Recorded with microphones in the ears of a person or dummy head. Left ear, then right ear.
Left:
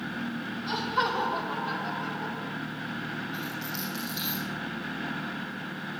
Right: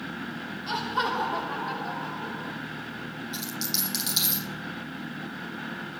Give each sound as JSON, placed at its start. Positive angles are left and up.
{"t": 0.7, "sound": "laughter", "side_deg": -15, "distance_m": 3.5}
{"t": 3.3, "sound": "a dropped coin", "side_deg": -60, "distance_m": 7.5}